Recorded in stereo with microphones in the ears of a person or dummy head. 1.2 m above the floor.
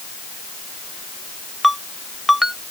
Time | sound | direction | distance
1.6 | a ringtone | 5° right (ahead or behind) | ?